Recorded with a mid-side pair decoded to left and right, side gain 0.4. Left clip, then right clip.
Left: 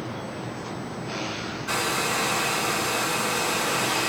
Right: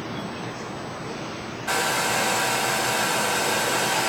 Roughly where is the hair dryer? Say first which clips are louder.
Right 3 dB; right.